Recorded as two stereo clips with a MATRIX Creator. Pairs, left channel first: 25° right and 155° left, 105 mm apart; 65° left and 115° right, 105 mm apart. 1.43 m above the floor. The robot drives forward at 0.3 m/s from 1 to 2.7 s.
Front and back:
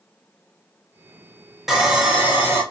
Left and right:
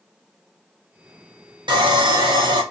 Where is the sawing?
115° right, 0.7 m; by 2.6 s 140° right, 0.8 m.